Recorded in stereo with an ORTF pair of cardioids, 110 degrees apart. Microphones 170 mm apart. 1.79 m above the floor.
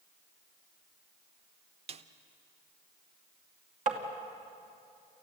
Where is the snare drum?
35° right, 1.0 m.